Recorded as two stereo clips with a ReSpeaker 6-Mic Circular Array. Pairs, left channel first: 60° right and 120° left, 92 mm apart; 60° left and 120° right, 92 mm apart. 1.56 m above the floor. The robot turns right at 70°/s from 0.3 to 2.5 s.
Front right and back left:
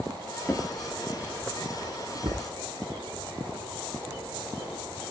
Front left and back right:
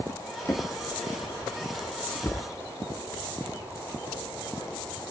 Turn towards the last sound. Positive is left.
turn(degrees=140)